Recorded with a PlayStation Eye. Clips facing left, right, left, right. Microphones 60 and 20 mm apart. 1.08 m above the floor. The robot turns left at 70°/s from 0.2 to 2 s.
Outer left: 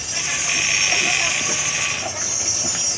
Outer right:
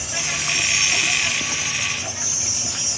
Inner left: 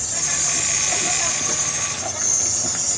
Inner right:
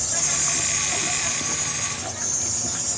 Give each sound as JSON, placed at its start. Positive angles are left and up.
{"t": 0.0, "sound": "an insect", "azimuth_deg": -175, "distance_m": 1.5}